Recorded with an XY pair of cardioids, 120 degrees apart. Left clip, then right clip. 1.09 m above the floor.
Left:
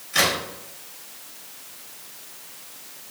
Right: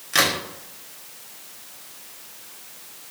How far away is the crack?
About 1.3 m.